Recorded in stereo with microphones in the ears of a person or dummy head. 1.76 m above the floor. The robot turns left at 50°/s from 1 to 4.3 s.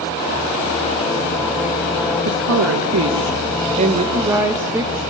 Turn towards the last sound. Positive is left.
turn(degrees=-170)